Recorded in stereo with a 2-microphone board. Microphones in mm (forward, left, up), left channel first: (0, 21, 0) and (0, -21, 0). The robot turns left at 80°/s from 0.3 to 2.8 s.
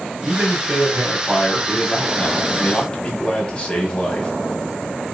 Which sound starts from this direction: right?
A man speaking, at 0.2 s.